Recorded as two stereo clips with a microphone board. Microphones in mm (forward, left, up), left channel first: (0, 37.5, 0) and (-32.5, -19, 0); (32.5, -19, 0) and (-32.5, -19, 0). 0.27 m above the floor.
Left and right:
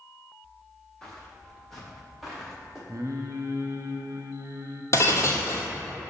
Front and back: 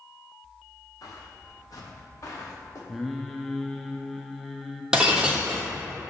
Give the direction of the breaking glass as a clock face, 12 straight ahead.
9 o'clock.